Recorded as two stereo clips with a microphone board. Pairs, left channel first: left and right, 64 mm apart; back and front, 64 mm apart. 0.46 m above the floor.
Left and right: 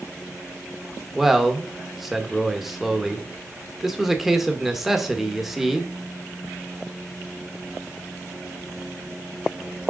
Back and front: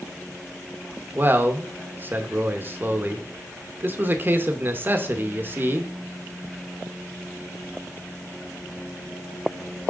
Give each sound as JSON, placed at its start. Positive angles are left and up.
{"t": 1.1, "sound": "a man speaking", "azimuth_deg": -5, "distance_m": 0.9}